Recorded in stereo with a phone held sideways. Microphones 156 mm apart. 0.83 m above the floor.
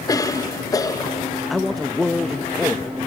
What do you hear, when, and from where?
0.1 s a cough: 25° left (ahead or behind), 0.7 m
1.5 s a man speaking: centre (ahead or behind), 0.6 m